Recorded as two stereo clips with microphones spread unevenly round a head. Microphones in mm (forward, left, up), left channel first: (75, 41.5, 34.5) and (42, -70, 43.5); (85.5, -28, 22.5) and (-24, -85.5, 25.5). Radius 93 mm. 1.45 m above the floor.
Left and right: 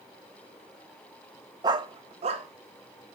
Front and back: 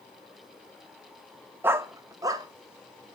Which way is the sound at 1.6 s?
95° right.